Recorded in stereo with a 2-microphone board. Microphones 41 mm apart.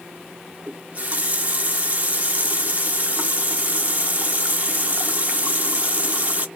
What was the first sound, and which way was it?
A running tap, 35° right (ahead or behind).